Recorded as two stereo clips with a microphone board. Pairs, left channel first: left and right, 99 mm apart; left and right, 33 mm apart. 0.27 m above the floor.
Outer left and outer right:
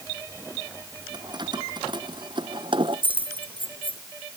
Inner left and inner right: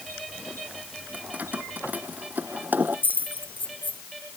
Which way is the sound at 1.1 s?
50° right (ahead or behind).